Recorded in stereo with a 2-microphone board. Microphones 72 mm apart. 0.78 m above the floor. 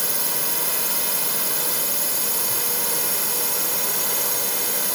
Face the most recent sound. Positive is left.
turn(degrees=0)  # may be behind; listen again after turning